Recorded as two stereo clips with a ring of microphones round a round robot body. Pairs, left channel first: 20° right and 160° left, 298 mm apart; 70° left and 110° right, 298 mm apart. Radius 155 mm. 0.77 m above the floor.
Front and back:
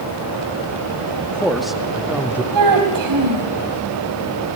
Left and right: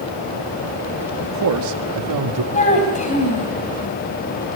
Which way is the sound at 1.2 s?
105° right.